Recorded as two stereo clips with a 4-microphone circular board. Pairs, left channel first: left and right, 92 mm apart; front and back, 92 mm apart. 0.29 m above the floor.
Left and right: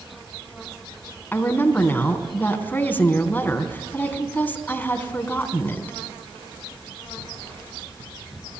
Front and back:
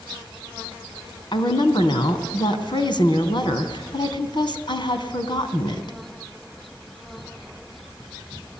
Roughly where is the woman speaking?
Ahead.